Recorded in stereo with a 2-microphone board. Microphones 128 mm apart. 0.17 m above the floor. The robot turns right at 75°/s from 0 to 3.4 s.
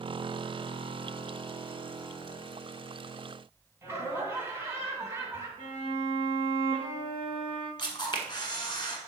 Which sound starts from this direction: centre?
Laughter, at 3.8 s.